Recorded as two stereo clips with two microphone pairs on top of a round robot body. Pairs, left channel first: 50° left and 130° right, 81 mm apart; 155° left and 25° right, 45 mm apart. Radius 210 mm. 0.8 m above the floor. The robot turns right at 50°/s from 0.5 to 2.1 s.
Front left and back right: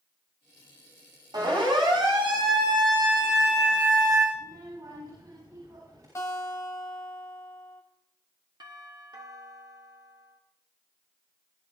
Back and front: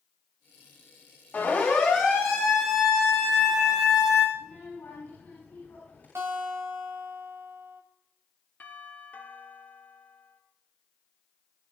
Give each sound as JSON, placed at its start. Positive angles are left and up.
{"t": 1.3, "sound": "a siren", "azimuth_deg": -160, "distance_m": 8.0}
{"t": 4.3, "sound": "a child speaking", "azimuth_deg": -170, "distance_m": 8.0}
{"t": 6.2, "sound": "a guitar", "azimuth_deg": -10, "distance_m": 1.8}
{"t": 8.6, "sound": "a doorbell", "azimuth_deg": -160, "distance_m": 3.0}